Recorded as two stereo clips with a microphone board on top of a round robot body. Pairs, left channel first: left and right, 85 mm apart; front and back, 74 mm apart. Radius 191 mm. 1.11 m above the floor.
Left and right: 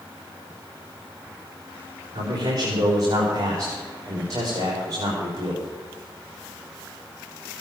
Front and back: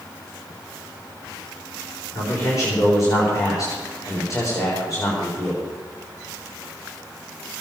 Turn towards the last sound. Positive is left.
turn(degrees=-45)